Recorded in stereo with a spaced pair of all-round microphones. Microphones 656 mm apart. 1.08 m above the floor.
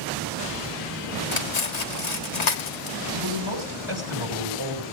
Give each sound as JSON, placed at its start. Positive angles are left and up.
{"t": 1.3, "sound": "cutlery clinking", "side_deg": 80, "distance_m": 1.4}
{"t": 3.1, "sound": "a man speaking", "side_deg": -45, "distance_m": 7.0}